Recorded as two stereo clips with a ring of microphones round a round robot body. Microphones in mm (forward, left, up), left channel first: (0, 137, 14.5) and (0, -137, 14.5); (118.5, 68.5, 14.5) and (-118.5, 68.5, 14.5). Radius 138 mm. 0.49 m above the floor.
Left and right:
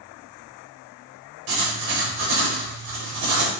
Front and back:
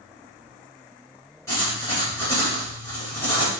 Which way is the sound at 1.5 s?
80° right.